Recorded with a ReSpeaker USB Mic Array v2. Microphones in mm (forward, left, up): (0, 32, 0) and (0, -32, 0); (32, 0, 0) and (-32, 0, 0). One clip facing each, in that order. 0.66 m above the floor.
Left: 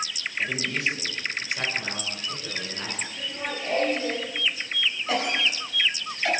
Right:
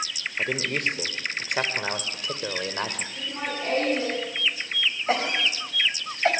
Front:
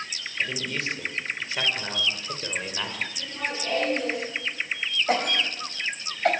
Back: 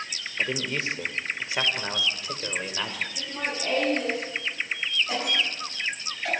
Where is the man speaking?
125° right, 3 m; by 3.1 s 90° right, 3 m.